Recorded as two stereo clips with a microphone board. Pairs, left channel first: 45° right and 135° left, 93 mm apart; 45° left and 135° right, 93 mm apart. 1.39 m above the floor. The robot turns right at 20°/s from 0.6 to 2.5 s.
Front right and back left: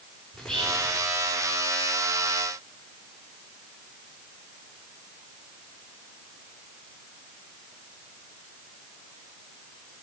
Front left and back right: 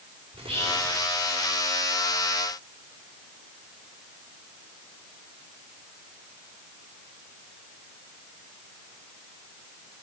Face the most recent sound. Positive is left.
turn(degrees=-90)